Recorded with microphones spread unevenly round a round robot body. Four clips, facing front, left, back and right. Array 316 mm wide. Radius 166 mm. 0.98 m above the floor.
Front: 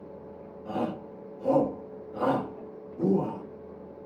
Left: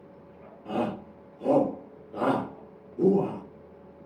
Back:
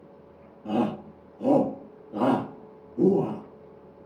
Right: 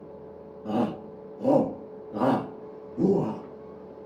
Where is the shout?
135° right, 1.9 m.